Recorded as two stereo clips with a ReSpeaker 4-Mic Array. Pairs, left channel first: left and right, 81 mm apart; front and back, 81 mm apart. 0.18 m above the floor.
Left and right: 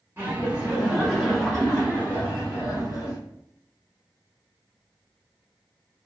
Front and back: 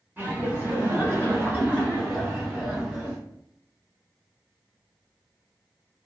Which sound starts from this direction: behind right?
Laughter, at 0.2 s.